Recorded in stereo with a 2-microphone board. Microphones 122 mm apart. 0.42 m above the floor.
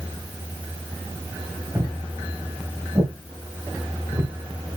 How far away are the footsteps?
About 4.5 m.